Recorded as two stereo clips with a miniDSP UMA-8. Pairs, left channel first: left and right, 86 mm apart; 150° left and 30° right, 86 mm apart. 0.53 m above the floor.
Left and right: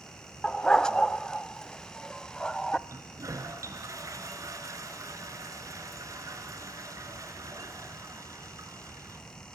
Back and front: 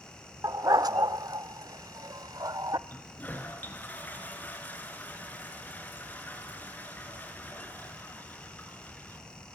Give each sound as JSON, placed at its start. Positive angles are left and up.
{"t": 0.4, "sound": "a dog barking", "azimuth_deg": 10, "distance_m": 0.6}
{"t": 2.9, "sound": "a toilet flushing", "azimuth_deg": -140, "distance_m": 2.5}